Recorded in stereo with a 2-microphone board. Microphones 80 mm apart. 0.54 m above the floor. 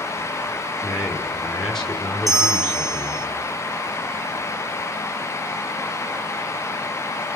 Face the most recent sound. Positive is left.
turn(degrees=-55)  # may be behind; listen again after turning